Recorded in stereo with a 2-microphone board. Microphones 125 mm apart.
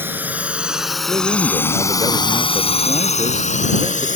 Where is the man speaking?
35° right (ahead or behind).